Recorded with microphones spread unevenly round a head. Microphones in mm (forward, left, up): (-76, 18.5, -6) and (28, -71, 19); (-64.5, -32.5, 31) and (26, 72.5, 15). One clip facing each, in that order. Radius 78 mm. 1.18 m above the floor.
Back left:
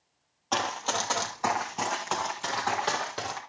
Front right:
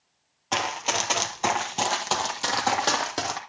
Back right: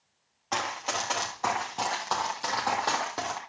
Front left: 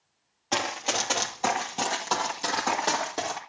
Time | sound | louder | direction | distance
0.5 | running footsteps | front right 2 dB, front left 2 dB | 10° left | 1.2 m